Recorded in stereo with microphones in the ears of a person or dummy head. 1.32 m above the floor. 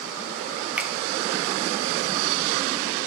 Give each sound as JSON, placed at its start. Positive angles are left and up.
{"t": 0.8, "sound": "a finger snap", "side_deg": -10, "distance_m": 0.6}